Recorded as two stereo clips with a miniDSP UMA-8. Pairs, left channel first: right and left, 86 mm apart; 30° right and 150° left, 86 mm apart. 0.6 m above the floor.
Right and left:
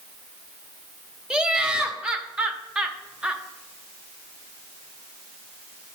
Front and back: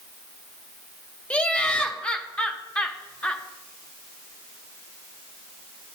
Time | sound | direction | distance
1.3 | laughter | 25° left | 0.7 m